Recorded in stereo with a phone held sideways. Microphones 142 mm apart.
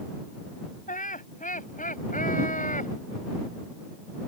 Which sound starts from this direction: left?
Laughter, at 0.9 s.